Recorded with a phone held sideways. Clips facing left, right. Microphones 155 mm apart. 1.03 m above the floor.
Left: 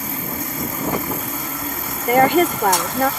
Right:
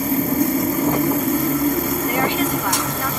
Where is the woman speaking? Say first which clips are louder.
Left 11 dB; 60° left (ahead or behind).